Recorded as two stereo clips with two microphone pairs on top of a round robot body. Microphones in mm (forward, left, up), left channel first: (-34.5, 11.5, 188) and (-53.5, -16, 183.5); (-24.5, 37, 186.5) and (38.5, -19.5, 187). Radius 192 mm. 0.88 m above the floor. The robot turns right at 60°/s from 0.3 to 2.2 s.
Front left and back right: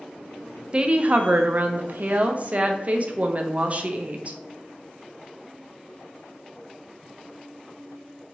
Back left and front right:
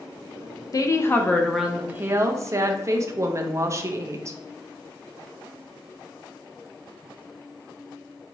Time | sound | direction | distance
0.7 | a woman speaking | straight behind | 0.5 m